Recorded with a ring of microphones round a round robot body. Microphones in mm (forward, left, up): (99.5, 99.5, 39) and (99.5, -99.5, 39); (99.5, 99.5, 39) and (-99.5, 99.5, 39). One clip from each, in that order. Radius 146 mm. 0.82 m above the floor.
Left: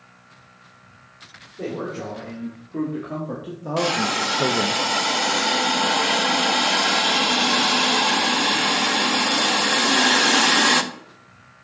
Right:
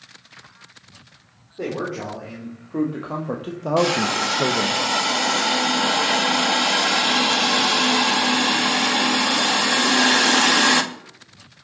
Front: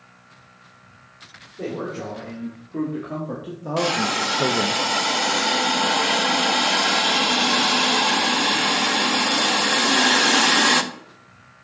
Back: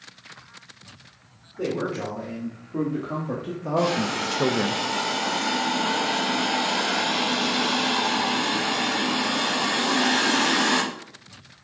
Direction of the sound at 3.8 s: Straight ahead.